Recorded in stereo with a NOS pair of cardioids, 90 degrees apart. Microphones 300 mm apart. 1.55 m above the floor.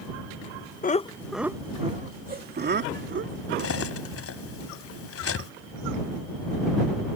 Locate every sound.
0.8 s laughter: 30° left; by 3.9 s 45° right
3.6 s cutlery clinking: 50° left